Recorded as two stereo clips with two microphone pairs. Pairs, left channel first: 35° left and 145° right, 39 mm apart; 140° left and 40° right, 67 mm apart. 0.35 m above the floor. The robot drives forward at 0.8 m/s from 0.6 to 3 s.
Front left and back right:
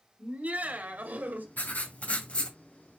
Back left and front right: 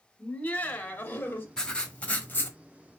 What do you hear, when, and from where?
0.2 s laughter: 160° right, 1.8 m; by 1.5 s 165° right, 2.5 m
1.6 s writing: 60° left, 1.8 m; by 2.6 s 90° left, 1.6 m